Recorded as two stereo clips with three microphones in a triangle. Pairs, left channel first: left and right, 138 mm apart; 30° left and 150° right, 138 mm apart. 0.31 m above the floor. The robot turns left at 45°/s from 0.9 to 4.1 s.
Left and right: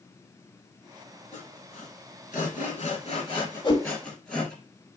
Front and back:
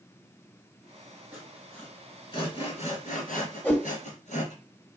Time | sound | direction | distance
1.3 | sawing | 130° left | 2.5 m
3.6 | a whoosh | 105° left | 1.1 m